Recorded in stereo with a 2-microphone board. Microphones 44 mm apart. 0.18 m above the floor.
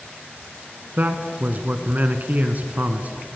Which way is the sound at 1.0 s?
40° right (ahead or behind).